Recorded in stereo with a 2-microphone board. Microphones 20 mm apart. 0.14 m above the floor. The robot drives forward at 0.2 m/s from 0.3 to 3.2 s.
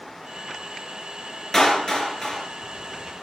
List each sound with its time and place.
1.5 s a clap: 25° left (ahead or behind), 1.4 m; by 2.5 s 20° left (ahead or behind), 1.5 m